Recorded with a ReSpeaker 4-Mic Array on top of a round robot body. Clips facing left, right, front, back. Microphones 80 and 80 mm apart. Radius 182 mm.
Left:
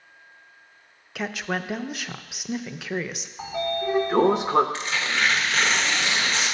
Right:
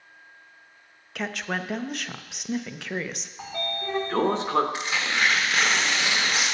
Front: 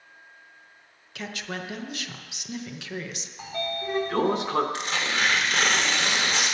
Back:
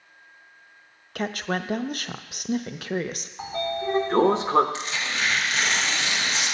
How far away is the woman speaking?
About 0.7 m.